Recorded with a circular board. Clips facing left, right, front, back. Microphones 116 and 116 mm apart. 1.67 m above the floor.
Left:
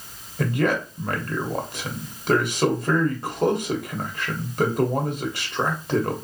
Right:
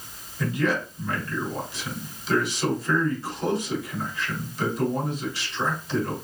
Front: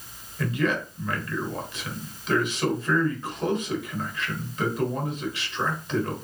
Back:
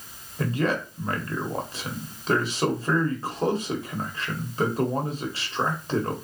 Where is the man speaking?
125° left, 1.3 m.